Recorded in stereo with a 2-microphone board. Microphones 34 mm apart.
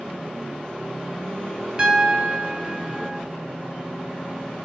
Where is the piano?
30° right (ahead or behind), 0.8 m.